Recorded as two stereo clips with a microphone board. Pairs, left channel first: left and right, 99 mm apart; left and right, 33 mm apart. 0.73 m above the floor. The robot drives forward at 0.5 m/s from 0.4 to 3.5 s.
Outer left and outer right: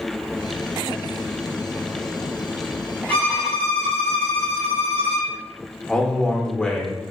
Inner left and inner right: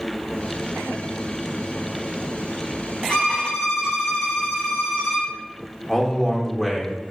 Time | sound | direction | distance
3.1 | a violin | 15° left (ahead or behind) | 1.7 m
5.9 | a man speaking | 10° left (ahead or behind) | 0.7 m